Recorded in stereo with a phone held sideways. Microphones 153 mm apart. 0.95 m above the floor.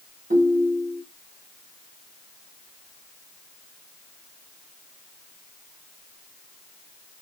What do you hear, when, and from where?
0.3 s a ringtone: 80° right, 2 m